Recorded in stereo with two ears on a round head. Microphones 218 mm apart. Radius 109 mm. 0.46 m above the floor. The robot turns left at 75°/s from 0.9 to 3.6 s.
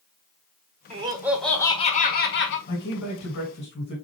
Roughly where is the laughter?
Behind right.